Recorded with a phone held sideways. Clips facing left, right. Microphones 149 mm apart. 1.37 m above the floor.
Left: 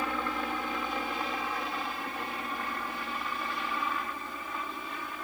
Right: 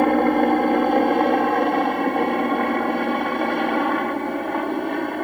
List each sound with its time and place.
0.0 s a helicopter: 60° right (ahead or behind); by 5.2 s 65° right (ahead or behind)